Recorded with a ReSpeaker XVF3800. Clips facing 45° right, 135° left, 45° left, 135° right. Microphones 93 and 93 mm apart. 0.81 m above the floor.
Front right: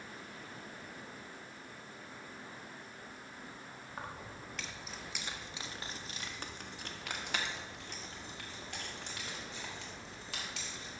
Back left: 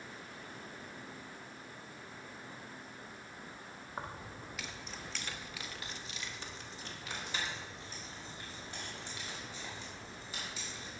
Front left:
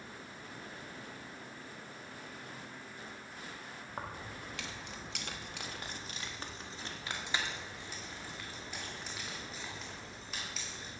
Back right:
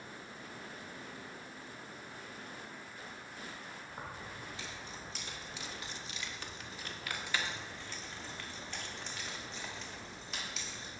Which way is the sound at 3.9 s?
70° left.